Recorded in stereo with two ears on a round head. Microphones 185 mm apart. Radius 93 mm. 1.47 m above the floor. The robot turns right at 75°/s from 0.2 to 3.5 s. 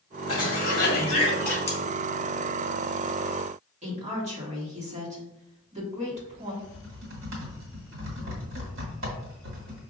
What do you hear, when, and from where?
0.3 s a cough: 80° left, 2.0 m; by 1.6 s straight behind, 2.0 m
1.7 s cutlery clinking: 10° left (ahead or behind), 1.0 m; by 1.8 s 20° left (ahead or behind), 1.0 m
3.8 s a woman speaking: 35° right (ahead or behind), 1.6 m
6.6 s typing on a keyboard: 65° right (ahead or behind), 1.6 m